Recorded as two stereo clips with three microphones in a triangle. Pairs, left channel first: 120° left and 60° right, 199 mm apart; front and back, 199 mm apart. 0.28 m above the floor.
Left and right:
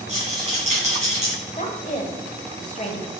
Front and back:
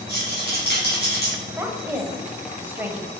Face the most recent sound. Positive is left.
turn(degrees=105)